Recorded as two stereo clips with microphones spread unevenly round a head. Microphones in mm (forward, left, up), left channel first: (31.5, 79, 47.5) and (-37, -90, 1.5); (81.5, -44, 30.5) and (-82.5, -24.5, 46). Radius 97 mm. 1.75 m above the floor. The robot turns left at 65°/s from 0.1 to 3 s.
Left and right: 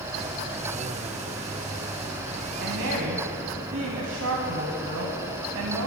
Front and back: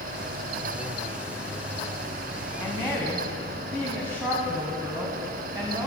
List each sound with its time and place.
2.6 s a woman speaking: 85° right, 1.1 m; by 5.9 s 110° right, 1.1 m